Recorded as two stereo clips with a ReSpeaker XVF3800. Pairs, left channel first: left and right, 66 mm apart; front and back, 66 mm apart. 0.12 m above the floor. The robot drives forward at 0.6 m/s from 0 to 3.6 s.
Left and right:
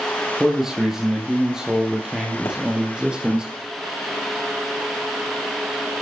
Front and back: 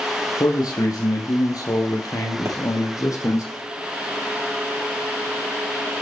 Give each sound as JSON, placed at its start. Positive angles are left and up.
{"t": 0.4, "sound": "a man speaking", "azimuth_deg": -10, "distance_m": 4.0}
{"t": 2.5, "sound": "a pop", "azimuth_deg": 135, "distance_m": 6.0}